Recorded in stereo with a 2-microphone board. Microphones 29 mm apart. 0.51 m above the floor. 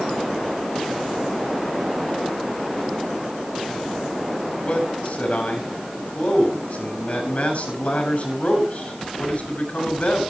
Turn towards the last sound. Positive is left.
turn(degrees=55)  # may be behind; listen again after turning